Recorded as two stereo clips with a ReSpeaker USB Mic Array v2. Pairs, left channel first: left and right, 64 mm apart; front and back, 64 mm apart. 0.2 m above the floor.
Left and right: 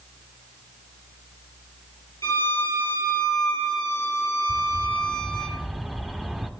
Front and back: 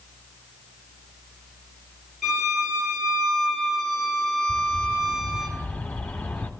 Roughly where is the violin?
Left.